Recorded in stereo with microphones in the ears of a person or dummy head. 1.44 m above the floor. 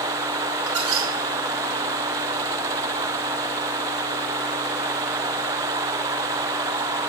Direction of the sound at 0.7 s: 70° right (ahead or behind).